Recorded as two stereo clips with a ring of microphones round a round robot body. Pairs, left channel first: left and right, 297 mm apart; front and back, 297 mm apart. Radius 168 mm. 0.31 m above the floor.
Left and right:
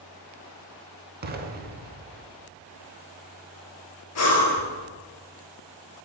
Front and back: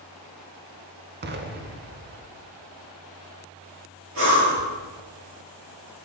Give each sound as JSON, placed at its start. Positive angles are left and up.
{"t": 1.2, "sound": "an explosion", "azimuth_deg": -135, "distance_m": 0.7}
{"t": 4.2, "sound": "breathing", "azimuth_deg": 125, "distance_m": 1.4}